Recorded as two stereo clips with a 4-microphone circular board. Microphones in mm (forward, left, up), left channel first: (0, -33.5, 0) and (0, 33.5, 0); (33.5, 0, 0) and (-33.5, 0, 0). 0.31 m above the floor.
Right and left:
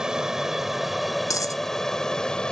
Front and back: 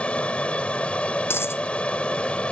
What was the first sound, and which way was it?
An aircraft, 30° left.